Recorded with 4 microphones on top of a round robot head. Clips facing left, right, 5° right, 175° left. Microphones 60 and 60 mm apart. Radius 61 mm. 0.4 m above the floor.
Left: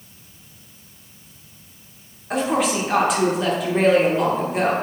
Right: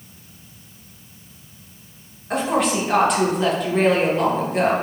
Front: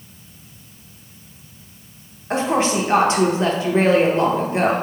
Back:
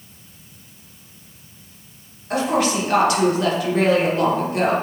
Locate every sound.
2.3 s a woman speaking: 5° left, 0.8 m